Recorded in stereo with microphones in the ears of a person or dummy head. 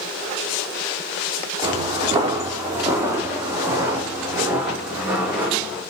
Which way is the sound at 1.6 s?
30° right (ahead or behind).